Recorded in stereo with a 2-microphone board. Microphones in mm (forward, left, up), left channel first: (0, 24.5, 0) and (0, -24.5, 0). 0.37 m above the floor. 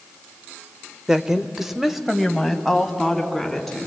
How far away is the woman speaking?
About 0.8 m.